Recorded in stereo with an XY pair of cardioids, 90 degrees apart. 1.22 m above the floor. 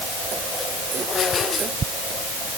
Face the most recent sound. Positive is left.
No sound to turn to.